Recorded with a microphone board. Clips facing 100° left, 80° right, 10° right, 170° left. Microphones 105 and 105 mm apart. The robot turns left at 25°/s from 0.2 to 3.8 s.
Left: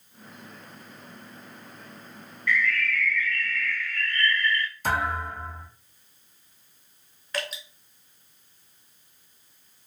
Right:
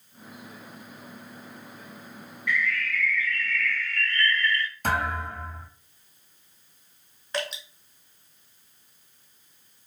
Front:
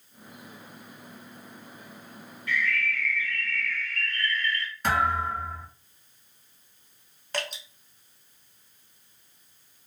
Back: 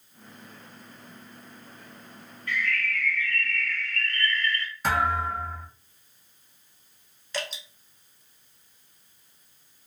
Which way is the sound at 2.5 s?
150° right.